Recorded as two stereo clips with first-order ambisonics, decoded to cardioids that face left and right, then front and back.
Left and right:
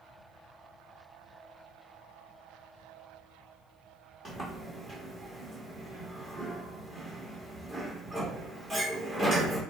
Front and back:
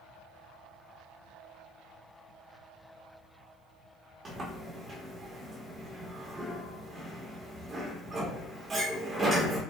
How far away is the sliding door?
About 1.1 m.